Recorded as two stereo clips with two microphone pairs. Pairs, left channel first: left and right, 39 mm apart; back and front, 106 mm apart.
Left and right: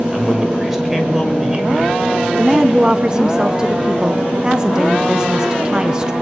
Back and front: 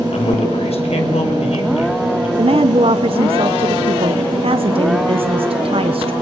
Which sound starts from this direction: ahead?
A woman speaking, at 2.4 s.